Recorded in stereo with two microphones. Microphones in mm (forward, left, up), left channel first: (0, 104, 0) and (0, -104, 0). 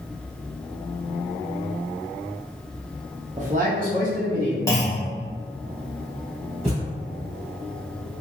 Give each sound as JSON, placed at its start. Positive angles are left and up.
{"t": 3.4, "sound": "a man speaking", "side_deg": -35, "distance_m": 0.7}
{"t": 4.7, "sound": "a clunk", "side_deg": 15, "distance_m": 0.9}
{"t": 6.6, "sound": "a thud", "side_deg": -30, "distance_m": 1.9}